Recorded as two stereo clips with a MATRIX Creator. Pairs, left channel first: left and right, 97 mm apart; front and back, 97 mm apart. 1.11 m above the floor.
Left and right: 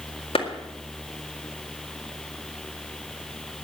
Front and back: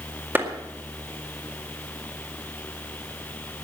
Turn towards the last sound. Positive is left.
turn(degrees=110)